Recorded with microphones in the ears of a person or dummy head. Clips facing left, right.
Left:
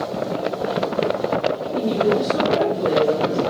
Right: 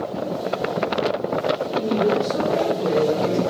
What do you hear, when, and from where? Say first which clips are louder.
1.7 s a woman speaking: left 2 dB; 20° left (ahead or behind), 3.5 m; by 3.4 s 10° right (ahead or behind), 2.0 m